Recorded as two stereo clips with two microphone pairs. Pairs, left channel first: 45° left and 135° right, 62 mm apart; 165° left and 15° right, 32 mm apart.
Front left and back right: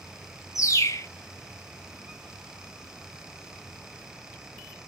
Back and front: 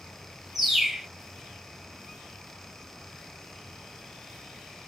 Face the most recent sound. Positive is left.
turn(degrees=70)